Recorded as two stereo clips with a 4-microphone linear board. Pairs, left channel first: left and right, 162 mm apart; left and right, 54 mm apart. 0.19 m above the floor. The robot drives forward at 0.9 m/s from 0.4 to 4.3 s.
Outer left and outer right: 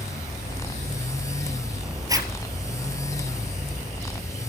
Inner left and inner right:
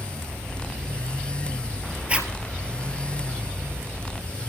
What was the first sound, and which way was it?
A zipper, 20° right (ahead or behind).